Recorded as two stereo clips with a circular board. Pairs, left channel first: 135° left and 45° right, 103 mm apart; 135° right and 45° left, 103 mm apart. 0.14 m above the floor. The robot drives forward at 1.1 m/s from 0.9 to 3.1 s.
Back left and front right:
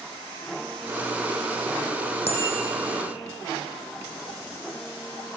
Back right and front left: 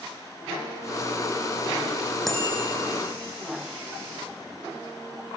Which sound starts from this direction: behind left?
A bicycle bell, at 2.3 s.